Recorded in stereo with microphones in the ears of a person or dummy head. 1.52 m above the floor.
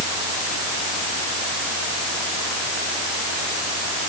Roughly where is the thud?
I don't hear a thud.